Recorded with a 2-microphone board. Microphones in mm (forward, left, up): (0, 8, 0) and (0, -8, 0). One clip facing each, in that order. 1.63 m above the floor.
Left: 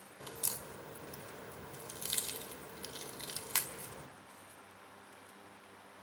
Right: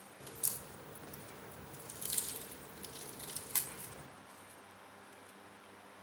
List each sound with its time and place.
0.2 s a crack: 45° left (ahead or behind), 2.0 m